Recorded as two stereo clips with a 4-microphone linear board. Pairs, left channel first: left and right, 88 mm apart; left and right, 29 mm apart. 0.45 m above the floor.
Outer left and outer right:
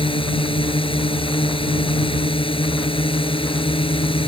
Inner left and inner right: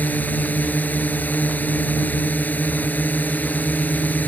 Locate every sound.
0.0 s a drone: 80° left